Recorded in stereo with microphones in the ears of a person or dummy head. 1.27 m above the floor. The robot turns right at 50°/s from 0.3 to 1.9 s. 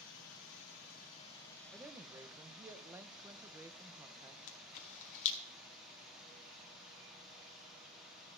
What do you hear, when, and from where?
0.0 s running water: 100° left, 2 m; by 8.4 s straight behind, 2 m
1.7 s a woman speaking: 5° right (ahead or behind), 0.6 m; by 4.4 s 10° right (ahead or behind), 0.6 m
4.5 s a camera shutter: 35° left (ahead or behind), 0.8 m